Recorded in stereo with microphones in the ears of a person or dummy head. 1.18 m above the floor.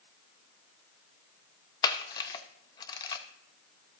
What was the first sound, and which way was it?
A camera shutter, 25° left (ahead or behind).